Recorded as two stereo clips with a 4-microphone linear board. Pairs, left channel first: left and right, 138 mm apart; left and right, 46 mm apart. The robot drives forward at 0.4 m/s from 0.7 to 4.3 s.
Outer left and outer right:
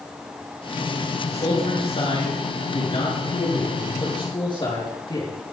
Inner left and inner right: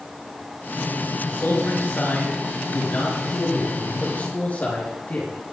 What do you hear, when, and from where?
1.3 s a man speaking: 45° left (ahead or behind), 4.5 m; by 5.3 s 35° left (ahead or behind), 5.5 m